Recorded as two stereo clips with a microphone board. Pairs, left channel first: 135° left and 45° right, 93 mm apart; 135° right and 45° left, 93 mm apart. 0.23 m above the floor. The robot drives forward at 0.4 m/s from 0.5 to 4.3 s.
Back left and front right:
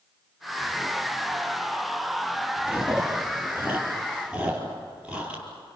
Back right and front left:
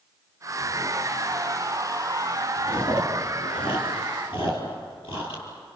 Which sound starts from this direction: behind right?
Chewing, at 2.7 s.